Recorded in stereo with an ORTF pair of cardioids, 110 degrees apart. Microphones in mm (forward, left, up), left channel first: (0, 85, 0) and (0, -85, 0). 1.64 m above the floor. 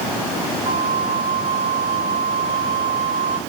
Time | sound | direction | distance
0.7 | a flute | 35° right | 1.2 m